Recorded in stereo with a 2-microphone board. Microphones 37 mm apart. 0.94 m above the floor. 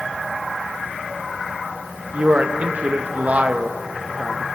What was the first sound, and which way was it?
A man speaking, 40° right (ahead or behind).